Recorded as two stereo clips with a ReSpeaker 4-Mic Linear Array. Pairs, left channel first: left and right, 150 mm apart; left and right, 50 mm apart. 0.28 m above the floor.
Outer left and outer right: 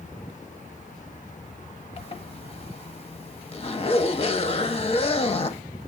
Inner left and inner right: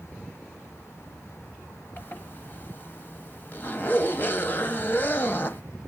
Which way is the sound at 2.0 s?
40° left (ahead or behind).